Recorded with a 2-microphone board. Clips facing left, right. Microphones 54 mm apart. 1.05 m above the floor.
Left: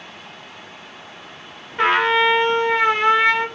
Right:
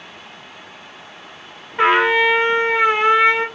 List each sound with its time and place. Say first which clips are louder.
1.8 s a trumpet: right 2 dB; 10° right (ahead or behind), 0.7 m